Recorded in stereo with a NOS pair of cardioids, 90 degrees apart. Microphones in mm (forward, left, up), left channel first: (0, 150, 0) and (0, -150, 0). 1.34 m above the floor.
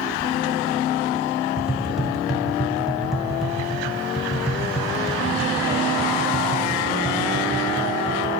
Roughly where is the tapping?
Ahead.